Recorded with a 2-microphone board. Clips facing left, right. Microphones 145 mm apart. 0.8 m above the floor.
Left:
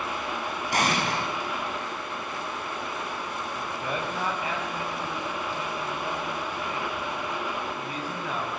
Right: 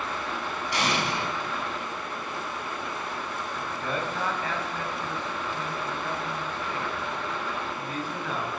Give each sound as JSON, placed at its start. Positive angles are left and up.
{"t": 0.7, "sound": "an explosion", "side_deg": 45, "distance_m": 5.0}
{"t": 3.6, "sound": "a man speaking", "side_deg": 10, "distance_m": 4.0}